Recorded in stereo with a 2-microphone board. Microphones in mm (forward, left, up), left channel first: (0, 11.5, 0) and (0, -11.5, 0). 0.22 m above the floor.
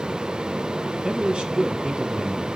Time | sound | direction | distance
1.0 | a man speaking | 50° right (ahead or behind) | 1.9 m